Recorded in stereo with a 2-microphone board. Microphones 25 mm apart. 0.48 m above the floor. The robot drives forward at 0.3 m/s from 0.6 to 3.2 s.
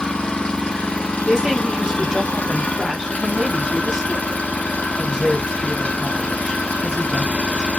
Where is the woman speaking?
20° right (ahead or behind), 1.2 m.